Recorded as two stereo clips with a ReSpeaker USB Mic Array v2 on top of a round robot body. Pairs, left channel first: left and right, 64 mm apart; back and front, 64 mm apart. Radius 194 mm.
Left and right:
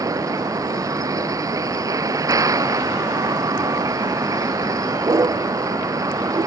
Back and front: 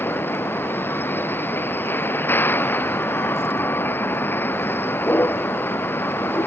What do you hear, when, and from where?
0.0 s a vehicle: 120° right